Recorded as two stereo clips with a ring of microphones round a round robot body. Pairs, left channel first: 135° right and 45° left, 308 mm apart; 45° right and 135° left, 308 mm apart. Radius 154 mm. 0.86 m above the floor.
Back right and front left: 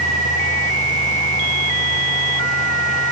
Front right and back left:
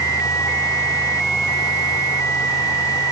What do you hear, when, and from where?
Only background noise.